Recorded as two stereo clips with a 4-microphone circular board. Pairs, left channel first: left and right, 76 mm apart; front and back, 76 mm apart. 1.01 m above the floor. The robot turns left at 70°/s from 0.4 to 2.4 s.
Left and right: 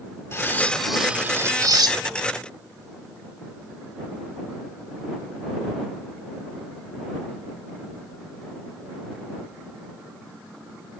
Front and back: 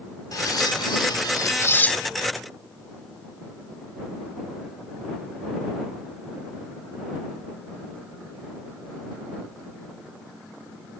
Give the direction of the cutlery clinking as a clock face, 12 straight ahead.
11 o'clock.